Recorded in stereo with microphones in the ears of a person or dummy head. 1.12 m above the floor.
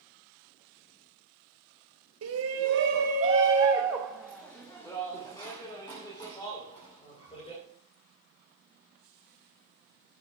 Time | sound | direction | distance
2.2 | a shout | 85° right | 1.4 m